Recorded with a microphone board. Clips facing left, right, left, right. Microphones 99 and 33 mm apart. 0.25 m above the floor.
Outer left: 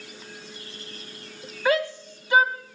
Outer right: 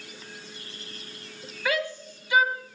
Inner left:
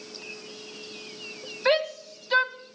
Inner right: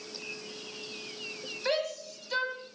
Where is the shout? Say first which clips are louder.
Outer left 5 dB, inner left 7 dB; 35° left (ahead or behind), 1.6 m.